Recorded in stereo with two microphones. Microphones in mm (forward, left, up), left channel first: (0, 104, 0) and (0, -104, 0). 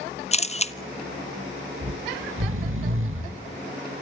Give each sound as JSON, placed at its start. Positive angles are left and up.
{"t": 0.3, "sound": "a camera shutter", "side_deg": 30, "distance_m": 0.7}
{"t": 1.8, "sound": "snoring", "side_deg": -80, "distance_m": 1.8}